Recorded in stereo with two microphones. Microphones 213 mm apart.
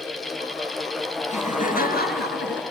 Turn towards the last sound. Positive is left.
turn(degrees=55)  # may be behind; listen again after turning